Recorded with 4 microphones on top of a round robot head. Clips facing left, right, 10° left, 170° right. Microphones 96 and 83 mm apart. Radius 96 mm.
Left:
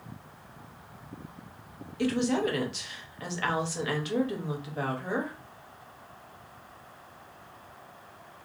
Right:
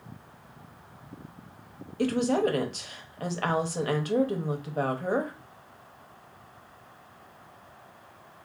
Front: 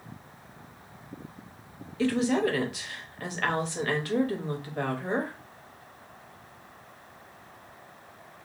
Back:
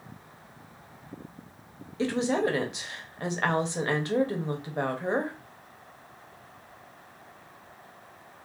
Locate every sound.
2.0 s a woman speaking: 115° right, 0.8 m